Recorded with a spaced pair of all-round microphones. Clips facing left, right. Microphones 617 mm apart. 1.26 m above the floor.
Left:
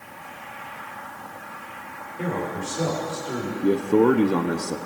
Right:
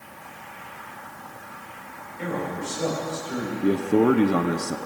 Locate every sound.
2.2 s a man speaking: 85° left, 4 m; by 3.5 s 75° left (ahead or behind), 4 m
3.6 s a man speaking: 5° right (ahead or behind), 0.7 m